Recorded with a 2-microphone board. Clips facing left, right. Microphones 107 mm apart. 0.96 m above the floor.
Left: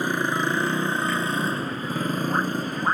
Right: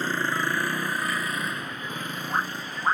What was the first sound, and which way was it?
A motorcycle, 15° left (ahead or behind).